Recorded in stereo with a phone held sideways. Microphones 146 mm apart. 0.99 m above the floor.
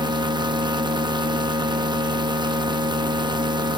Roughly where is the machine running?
Right.